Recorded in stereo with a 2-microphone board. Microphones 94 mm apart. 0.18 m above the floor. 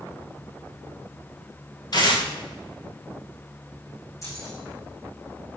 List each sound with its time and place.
1.9 s tearing paper: 45° left (ahead or behind), 5 m
4.2 s keys jangling: 35° left (ahead or behind), 8.5 m